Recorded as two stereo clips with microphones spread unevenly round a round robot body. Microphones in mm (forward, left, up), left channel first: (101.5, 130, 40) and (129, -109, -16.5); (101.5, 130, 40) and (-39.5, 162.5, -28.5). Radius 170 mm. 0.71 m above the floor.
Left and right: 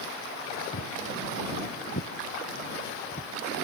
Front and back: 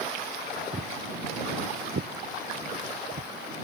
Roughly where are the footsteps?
Left.